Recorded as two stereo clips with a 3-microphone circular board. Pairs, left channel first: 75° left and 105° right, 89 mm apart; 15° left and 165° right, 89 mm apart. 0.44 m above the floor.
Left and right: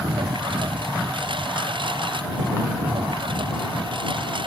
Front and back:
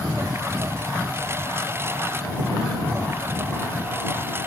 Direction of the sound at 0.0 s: 105° right.